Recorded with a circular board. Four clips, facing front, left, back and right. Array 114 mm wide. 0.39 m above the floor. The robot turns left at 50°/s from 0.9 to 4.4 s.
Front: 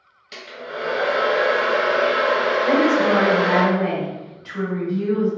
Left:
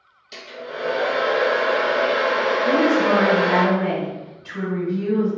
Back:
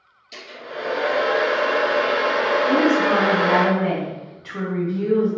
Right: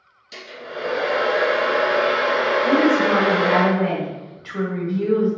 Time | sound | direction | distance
0.3 | a hair dryer | 5° left | 1.2 m
2.6 | a woman speaking | 30° right | 1.5 m